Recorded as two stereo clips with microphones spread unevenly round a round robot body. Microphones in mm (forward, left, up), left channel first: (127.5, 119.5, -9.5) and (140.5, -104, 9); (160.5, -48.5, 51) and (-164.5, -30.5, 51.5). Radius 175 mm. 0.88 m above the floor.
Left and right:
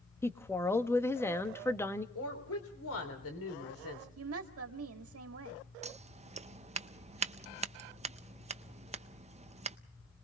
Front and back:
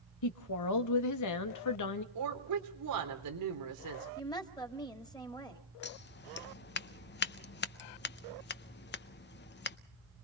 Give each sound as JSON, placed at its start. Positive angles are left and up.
{"t": 0.2, "sound": "a woman speaking", "azimuth_deg": 20, "distance_m": 1.6}
{"t": 2.1, "sound": "a woman speaking", "azimuth_deg": 140, "distance_m": 3.5}
{"t": 4.2, "sound": "a woman speaking", "azimuth_deg": -80, "distance_m": 2.0}
{"t": 5.8, "sound": "scissors", "azimuth_deg": -35, "distance_m": 0.7}